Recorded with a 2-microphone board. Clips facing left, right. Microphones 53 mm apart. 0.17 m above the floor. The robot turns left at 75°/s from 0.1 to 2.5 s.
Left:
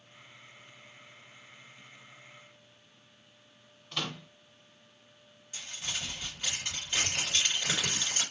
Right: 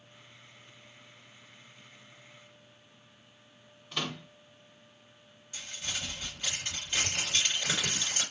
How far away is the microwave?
About 1.1 m.